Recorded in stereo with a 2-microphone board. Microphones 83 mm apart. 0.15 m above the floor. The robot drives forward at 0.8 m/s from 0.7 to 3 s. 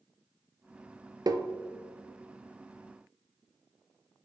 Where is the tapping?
50° right (ahead or behind), 0.5 m; by 1.5 s 40° right (ahead or behind), 0.6 m.